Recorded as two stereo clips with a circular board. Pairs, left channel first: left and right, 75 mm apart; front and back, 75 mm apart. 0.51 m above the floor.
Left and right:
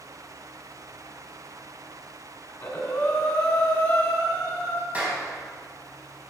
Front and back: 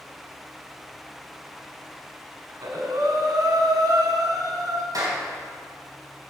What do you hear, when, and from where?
2.5 s breathing: 160° left, 2 m
4.9 s a clap: 160° right, 3 m